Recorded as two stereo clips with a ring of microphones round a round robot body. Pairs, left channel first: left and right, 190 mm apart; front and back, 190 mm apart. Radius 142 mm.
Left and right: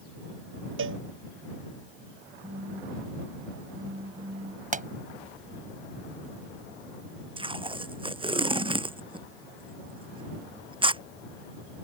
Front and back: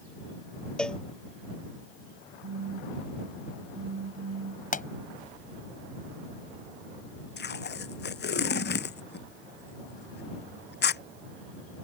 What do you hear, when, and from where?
0.8 s a cowbell: 85° right
2.4 s a phone buzzing: 155° right
4.7 s a pop: 45° right
7.4 s tape being pulled: 30° right